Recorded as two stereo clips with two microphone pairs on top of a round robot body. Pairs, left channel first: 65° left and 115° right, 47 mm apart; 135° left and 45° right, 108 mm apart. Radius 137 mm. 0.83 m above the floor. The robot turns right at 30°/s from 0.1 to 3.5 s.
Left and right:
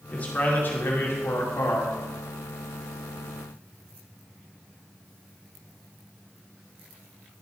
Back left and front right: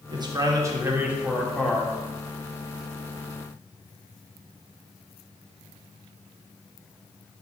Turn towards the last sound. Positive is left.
turn(degrees=100)